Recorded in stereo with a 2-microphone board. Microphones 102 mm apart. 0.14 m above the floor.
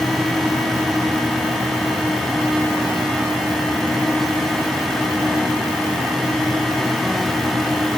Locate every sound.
Only background noise.